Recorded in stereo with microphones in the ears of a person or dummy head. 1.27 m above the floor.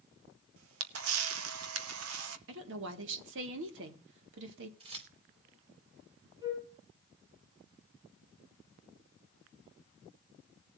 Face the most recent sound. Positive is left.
turn(degrees=-20)  # may be behind; listen again after turning